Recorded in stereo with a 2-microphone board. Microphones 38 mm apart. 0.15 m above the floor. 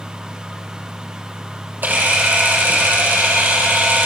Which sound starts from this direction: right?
A camera shutter, at 1.8 s.